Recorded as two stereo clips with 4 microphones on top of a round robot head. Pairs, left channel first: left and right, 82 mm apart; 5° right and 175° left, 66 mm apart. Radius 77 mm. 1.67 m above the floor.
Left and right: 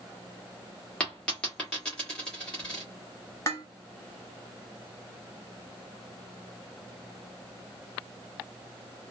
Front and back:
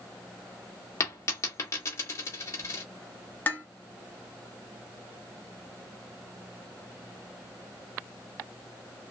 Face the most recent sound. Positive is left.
turn(degrees=35)